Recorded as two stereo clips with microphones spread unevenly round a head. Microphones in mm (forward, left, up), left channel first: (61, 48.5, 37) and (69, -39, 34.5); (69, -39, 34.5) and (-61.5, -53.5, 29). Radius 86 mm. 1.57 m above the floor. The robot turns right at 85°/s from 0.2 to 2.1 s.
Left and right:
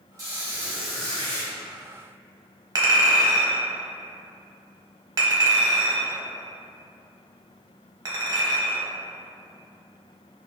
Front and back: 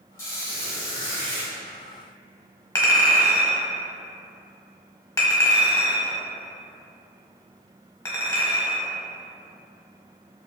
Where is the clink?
50° right, 0.8 m.